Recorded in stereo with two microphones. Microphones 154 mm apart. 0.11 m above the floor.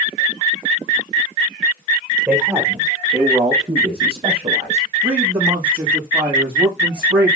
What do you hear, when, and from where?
2.3 s a man speaking: 15° right (ahead or behind), 4 m; by 4.9 s 45° right (ahead or behind), 4 m
5.0 s a man speaking: 30° right (ahead or behind), 5 m